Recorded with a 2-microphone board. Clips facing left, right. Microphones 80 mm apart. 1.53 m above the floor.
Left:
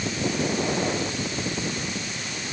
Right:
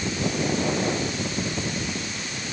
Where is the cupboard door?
No cupboard door in this recording.